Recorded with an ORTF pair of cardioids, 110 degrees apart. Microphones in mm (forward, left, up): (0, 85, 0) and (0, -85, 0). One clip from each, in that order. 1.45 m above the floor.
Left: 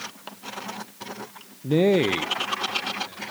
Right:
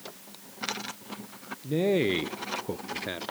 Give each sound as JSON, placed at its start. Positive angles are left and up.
{"t": 1.6, "sound": "a man speaking", "azimuth_deg": 40, "distance_m": 0.8}